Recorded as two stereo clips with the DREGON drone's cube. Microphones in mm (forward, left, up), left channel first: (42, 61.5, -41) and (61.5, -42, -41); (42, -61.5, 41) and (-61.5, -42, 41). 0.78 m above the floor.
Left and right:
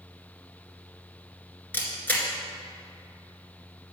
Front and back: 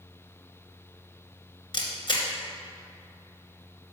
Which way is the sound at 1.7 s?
30° left.